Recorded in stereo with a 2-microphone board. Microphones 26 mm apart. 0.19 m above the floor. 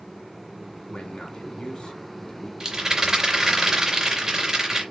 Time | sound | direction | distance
0.9 | a man speaking | 40° left (ahead or behind) | 1.6 m
2.6 | a rattle | 20° right (ahead or behind) | 2.5 m